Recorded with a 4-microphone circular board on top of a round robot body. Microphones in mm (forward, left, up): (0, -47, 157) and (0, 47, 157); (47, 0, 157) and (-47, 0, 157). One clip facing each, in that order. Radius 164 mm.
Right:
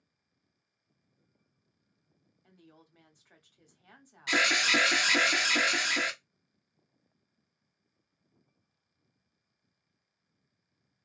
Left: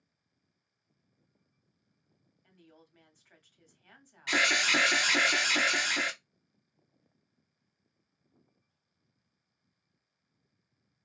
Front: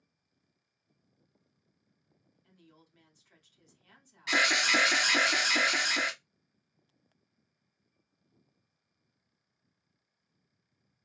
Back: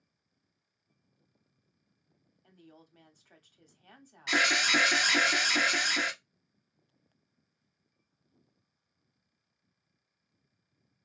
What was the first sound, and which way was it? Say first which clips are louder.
A woman speaking: right 1 dB, back 5 dB; 160° right.